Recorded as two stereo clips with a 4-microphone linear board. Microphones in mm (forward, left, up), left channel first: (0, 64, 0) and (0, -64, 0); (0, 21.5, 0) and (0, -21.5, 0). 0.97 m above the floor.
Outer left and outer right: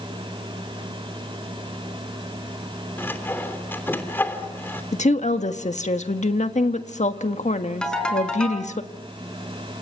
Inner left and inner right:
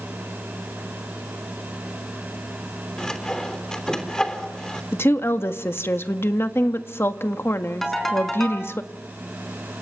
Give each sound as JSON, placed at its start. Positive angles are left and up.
{"t": 3.0, "sound": "sawing", "side_deg": 15, "distance_m": 3.0}
{"t": 4.9, "sound": "a woman speaking", "side_deg": 65, "distance_m": 1.6}
{"t": 7.8, "sound": "a ringtone", "side_deg": 5, "distance_m": 5.0}